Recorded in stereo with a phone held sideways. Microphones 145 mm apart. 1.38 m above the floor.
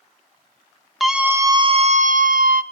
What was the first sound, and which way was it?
A scream, centre (ahead or behind).